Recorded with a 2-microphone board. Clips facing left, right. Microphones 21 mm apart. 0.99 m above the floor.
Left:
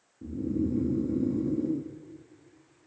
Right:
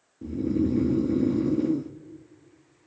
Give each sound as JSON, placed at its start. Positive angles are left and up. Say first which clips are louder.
{"t": 0.2, "sound": "snoring", "louder": "right 4 dB", "side_deg": -65, "distance_m": 0.7}